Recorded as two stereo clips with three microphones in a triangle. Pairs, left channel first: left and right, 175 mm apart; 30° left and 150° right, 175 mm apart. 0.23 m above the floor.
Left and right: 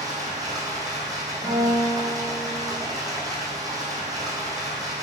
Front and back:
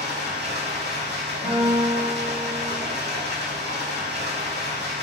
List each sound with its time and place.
0.0 s running water: 160° right, 1.1 m
1.4 s a guitar: 175° right, 1.8 m